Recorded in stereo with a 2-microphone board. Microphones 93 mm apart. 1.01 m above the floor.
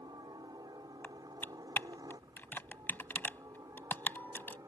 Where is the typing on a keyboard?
20° left (ahead or behind).